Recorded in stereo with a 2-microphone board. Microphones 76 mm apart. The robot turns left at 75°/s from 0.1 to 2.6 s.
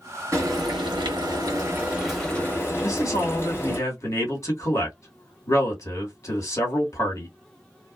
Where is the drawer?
No drawer in this recording.